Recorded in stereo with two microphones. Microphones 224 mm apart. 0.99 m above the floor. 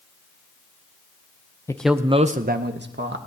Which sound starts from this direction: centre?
A man speaking, at 1.7 s.